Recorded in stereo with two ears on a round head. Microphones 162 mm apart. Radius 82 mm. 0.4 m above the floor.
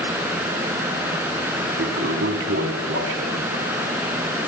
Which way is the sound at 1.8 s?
50° right (ahead or behind).